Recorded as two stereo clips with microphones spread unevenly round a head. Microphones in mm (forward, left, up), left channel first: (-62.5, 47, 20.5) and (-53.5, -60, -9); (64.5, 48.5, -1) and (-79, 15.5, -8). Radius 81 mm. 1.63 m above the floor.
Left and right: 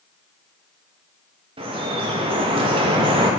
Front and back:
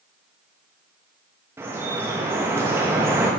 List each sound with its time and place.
1.6 s dripping: 100° right, 1.0 m